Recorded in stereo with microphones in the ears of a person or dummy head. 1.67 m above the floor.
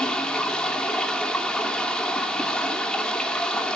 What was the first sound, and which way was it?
Running water, 10° left (ahead or behind).